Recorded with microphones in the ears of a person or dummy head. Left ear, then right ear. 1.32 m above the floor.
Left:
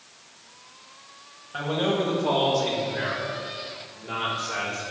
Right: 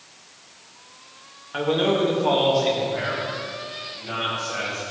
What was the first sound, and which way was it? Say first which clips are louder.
A man speaking: right 4 dB; 35° right (ahead or behind).